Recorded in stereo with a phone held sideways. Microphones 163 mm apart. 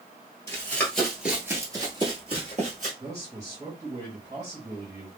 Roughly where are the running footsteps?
Centre.